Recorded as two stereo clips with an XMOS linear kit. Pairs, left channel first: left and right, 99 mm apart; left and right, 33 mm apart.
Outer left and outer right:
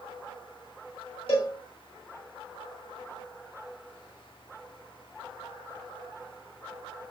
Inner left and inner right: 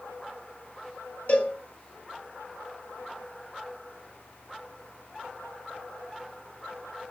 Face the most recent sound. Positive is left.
turn(degrees=70)  # may be behind; listen again after turning